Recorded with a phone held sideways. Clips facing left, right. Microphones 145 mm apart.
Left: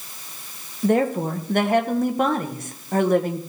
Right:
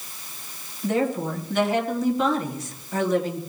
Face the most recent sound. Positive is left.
turn(degrees=55)  # may be behind; listen again after turning